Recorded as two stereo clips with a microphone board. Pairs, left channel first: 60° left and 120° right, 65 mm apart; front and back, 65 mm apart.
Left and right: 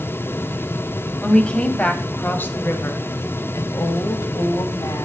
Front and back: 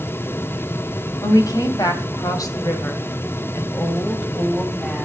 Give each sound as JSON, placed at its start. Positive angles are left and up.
{"t": 1.2, "sound": "a woman speaking", "azimuth_deg": -15, "distance_m": 3.0}